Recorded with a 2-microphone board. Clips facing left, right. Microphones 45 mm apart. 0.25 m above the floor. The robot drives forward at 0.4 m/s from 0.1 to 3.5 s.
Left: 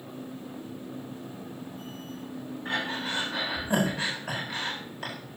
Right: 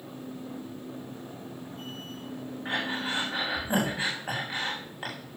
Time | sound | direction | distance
2.6 | breathing | 20° right (ahead or behind) | 7.5 m